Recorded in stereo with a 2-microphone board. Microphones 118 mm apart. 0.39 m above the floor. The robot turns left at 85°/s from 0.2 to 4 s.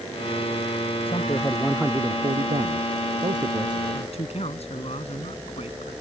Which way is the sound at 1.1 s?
55° left.